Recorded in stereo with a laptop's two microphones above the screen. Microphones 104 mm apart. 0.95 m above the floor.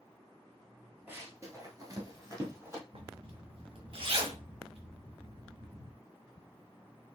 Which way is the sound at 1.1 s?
20° right (ahead or behind).